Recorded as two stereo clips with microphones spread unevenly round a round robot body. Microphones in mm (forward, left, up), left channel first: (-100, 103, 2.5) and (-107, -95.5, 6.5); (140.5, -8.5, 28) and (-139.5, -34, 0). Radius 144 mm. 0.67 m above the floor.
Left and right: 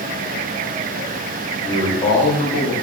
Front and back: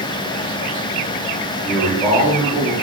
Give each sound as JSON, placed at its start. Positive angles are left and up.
{"t": 1.6, "sound": "a man speaking", "azimuth_deg": 125, "distance_m": 0.7}